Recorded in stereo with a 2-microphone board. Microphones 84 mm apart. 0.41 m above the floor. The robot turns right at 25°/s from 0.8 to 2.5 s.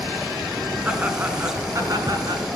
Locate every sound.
0.8 s laughter: 165° right, 5 m; by 2.4 s 125° right, 5 m